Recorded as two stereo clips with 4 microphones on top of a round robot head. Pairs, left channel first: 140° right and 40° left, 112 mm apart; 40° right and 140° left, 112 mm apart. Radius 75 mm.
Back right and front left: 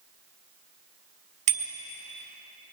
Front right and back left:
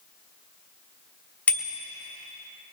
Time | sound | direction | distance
1.5 | a bicycle bell | 35° left | 3 m